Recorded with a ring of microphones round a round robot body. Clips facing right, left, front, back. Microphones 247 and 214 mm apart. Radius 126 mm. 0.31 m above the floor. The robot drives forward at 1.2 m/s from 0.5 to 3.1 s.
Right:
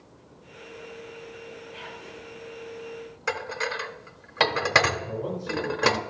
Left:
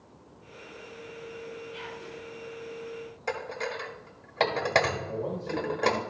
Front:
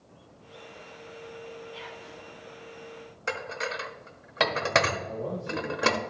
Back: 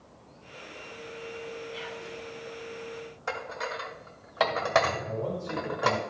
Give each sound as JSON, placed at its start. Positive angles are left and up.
{"t": 1.7, "sound": "whispering", "azimuth_deg": 120, "distance_m": 4.0}
{"t": 3.3, "sound": "dishes clattering", "azimuth_deg": -35, "distance_m": 0.7}
{"t": 5.0, "sound": "a man speaking", "azimuth_deg": -145, "distance_m": 3.0}